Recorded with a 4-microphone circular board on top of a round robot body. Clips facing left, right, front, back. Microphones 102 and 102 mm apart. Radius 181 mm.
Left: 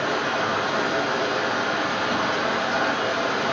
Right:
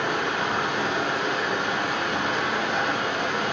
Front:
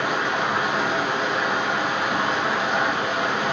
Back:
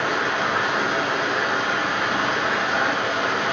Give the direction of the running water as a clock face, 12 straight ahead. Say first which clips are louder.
Left 2 dB, even; 9 o'clock.